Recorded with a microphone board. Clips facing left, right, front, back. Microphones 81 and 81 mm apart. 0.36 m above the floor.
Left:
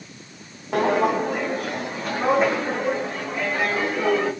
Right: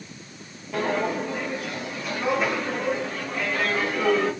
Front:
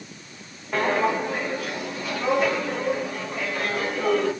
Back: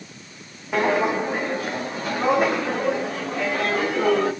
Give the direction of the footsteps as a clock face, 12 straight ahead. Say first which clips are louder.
Left 5 dB, back 2 dB; 9 o'clock.